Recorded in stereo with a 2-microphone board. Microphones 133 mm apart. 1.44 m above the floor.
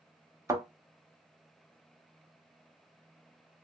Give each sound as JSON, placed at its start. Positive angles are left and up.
{"t": 0.5, "sound": "a thud", "side_deg": -20, "distance_m": 0.9}